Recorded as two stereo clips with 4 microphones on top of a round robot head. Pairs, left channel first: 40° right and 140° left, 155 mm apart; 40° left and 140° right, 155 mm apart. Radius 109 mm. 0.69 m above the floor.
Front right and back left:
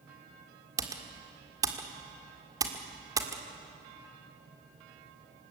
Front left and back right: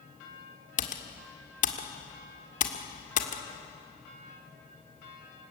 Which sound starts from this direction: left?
Typing on a keyboard, at 0.8 s.